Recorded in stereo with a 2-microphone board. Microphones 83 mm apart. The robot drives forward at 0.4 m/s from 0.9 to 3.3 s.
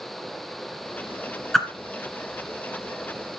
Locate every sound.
1.5 s a whoosh: 5° left (ahead or behind), 1.3 m